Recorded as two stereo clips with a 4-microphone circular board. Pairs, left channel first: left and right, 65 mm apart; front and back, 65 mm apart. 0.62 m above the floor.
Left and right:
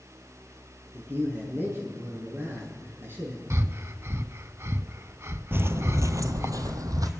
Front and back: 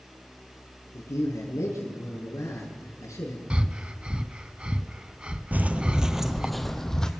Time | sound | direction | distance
0.9 | a man speaking | 40° right | 6.5 m
3.5 | breathing | 115° right | 0.7 m
5.5 | footsteps | 130° right | 0.8 m